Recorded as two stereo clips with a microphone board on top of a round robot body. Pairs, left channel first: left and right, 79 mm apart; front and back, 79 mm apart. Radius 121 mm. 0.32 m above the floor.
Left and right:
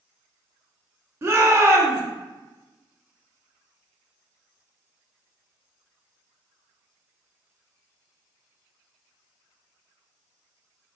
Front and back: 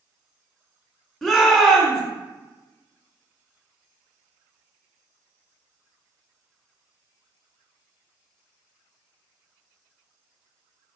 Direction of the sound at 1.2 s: 80° right.